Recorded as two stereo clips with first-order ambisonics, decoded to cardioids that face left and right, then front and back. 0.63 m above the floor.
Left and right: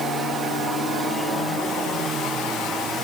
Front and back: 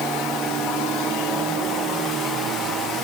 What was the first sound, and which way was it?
Only background noise.